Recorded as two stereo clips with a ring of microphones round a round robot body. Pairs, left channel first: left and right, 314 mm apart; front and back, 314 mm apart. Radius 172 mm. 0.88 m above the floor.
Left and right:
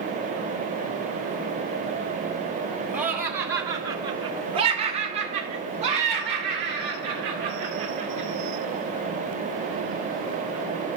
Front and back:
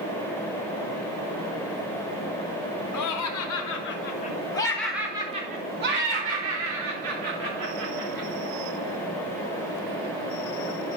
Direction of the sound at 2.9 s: 5° right.